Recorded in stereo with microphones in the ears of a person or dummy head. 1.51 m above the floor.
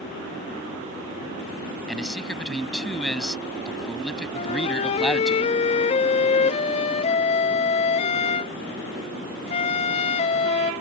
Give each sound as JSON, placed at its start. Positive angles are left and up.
{"t": 1.9, "sound": "a man speaking", "side_deg": 5}
{"t": 4.3, "sound": "a flute", "side_deg": 40}